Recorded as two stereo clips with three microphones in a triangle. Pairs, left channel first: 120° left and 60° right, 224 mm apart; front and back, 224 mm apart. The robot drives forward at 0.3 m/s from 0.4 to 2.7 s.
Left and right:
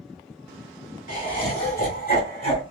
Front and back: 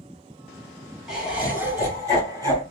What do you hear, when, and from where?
1.1 s laughter: 95° left, 1.3 m; by 2.6 s 120° left, 1.4 m